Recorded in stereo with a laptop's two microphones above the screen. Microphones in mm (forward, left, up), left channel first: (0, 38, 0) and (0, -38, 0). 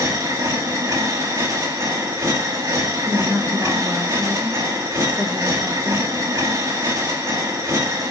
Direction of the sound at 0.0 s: 40° right (ahead or behind).